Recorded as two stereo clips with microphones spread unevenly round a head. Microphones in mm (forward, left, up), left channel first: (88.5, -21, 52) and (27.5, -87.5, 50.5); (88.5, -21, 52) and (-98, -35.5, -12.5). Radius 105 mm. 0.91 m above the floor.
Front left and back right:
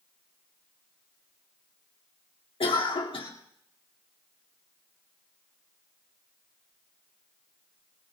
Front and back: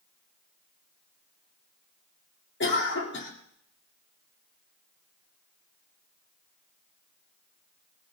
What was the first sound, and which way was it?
A cough, 45° left.